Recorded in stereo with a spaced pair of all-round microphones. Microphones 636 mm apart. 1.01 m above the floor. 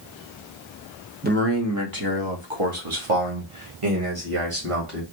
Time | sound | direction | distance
1.2 | a man speaking | 15° right (ahead or behind) | 1.0 m